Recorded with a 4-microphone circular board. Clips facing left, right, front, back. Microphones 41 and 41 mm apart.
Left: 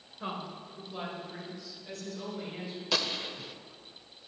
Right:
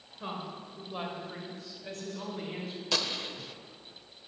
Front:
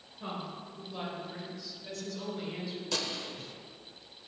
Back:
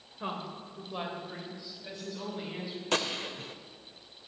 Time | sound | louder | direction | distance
0.2 | a woman speaking | left 1 dB, back 2 dB | 170° left | 1.7 m
2.9 | a gunshot | left 1 dB, back 7 dB | 175° left | 0.6 m